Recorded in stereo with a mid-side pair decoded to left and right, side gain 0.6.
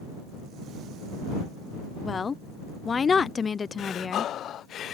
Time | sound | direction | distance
2.0 | a woman speaking | 30° left | ?
3.8 | breathing | 50° left | ?